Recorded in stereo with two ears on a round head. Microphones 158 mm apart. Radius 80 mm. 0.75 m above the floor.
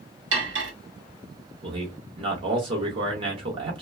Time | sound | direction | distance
0.3 | cutlery clinking | 70° right (ahead or behind) | 1.2 m
1.6 | a man speaking | 30° right (ahead or behind) | 1.1 m